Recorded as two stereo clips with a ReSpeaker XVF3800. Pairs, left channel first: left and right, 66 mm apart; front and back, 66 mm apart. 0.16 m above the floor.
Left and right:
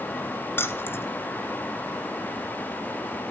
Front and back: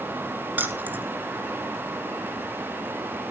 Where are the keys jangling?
130° left, 1.7 m.